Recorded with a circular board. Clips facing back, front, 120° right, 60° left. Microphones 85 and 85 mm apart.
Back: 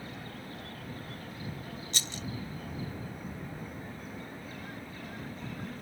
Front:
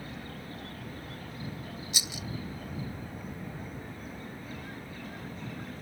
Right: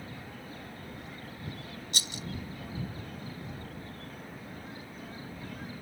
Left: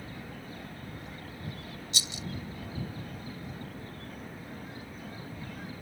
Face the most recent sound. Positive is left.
turn(degrees=-80)